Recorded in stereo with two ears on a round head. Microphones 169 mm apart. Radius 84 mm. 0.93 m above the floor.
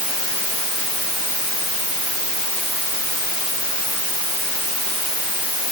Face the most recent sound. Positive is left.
No sound to turn to.